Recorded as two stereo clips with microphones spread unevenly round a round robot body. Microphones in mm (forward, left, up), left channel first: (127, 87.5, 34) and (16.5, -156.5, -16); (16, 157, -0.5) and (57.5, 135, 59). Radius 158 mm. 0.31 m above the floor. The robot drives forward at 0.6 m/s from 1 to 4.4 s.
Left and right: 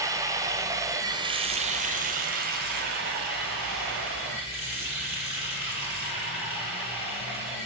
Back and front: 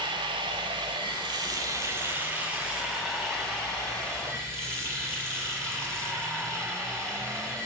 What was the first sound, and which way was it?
Running water, 65° right.